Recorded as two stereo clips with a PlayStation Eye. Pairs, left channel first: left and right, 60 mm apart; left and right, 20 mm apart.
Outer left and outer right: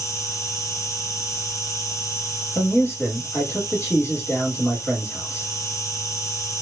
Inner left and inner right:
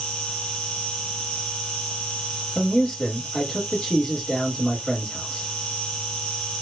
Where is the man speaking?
35° left (ahead or behind), 1.4 m.